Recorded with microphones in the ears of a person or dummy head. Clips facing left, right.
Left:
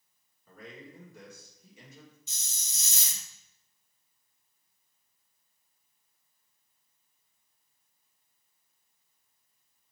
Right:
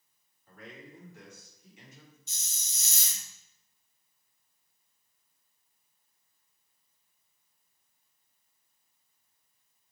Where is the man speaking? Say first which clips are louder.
Left 1 dB; 75° left (ahead or behind), 2 m.